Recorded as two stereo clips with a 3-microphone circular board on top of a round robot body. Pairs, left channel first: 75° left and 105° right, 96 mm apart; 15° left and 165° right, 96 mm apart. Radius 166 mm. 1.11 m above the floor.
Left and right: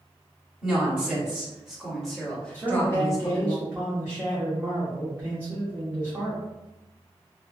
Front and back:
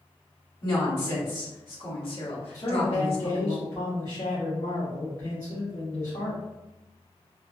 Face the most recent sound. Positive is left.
turn(degrees=-35)